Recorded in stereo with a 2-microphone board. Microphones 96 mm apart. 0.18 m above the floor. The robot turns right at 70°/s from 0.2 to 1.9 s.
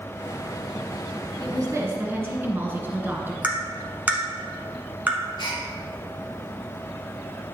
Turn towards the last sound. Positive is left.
turn(degrees=45)  # may be behind; listen again after turning